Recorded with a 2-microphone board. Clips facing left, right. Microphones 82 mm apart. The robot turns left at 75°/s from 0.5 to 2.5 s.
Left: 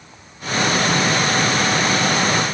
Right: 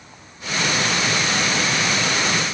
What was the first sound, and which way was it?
Only background noise.